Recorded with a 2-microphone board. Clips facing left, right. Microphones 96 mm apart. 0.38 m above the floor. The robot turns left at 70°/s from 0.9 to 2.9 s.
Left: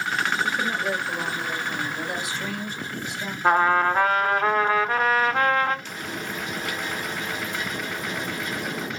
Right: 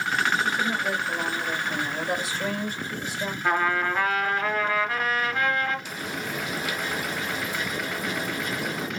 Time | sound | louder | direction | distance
0.4 | a woman speaking | even | 35° left | 1.5 m
3.4 | a trumpet | left 6 dB | 35° left (ahead or behind) | 0.7 m
5.8 | frying | even | 5° right (ahead or behind) | 1.2 m